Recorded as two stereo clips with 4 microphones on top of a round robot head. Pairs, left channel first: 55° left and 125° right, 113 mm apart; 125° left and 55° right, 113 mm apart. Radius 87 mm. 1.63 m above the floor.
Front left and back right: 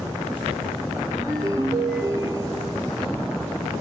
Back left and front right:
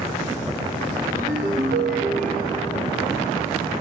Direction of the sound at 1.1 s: 70° right.